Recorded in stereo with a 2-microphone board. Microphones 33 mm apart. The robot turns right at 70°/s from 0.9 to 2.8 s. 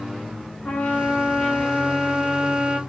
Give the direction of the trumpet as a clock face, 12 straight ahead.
9 o'clock.